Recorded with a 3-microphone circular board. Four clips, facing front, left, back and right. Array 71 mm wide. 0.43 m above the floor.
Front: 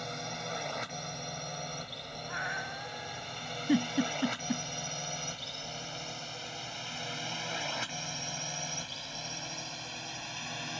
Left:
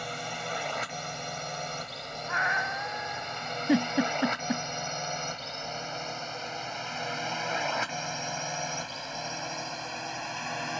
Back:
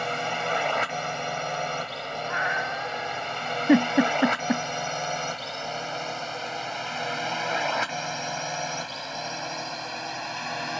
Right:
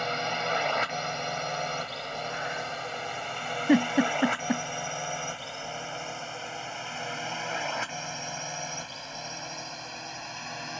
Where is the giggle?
165° right.